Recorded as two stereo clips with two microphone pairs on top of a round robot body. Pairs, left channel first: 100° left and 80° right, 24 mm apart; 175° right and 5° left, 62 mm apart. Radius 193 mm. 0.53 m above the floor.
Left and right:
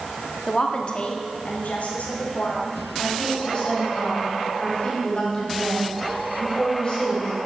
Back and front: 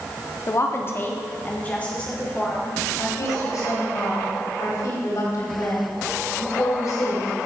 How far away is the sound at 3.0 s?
About 4 m.